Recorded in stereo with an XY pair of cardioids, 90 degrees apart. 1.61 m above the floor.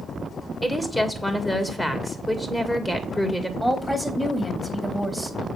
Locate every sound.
0.6 s a woman speaking: 10° left, 2 m
3.6 s a woman speaking: 5° left, 3 m